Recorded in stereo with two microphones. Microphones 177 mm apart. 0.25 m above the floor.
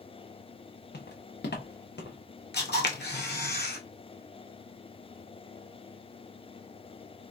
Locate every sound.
0.9 s footsteps: 70° left (ahead or behind), 0.9 m; by 2.2 s 75° left (ahead or behind), 1.5 m
2.5 s a camera shutter: 75° left (ahead or behind), 0.9 m